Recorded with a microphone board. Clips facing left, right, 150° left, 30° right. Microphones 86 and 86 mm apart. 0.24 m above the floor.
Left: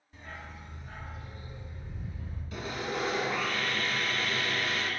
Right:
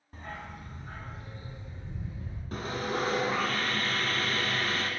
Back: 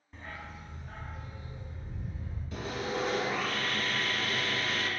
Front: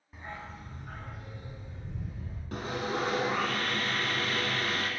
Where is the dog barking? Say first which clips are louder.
Right 4 dB, front 2 dB; 110° right, 0.7 m; by 2.4 s 25° right, 2.5 m.